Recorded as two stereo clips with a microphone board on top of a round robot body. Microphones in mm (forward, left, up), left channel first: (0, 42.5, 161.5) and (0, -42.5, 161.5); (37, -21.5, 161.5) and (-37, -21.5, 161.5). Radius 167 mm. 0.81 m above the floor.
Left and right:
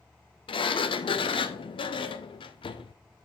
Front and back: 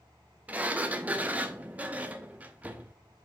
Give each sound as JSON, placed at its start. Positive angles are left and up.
{"t": 0.5, "sound": "a sliding door", "azimuth_deg": 110, "distance_m": 0.6}